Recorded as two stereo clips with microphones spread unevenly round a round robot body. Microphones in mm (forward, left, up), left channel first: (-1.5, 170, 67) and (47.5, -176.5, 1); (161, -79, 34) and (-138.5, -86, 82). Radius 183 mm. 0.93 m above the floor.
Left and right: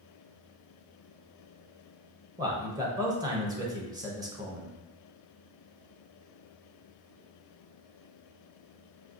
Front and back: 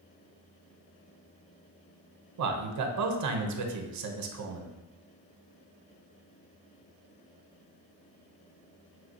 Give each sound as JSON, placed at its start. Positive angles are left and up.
{"t": 2.4, "sound": "a man speaking", "azimuth_deg": -150, "distance_m": 0.7}